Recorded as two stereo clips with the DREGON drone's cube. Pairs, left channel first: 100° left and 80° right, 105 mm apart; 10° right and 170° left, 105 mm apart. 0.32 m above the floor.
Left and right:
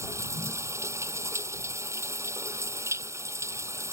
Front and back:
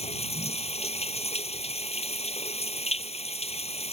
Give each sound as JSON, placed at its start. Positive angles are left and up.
{"t": 0.0, "sound": "running water", "azimuth_deg": -15}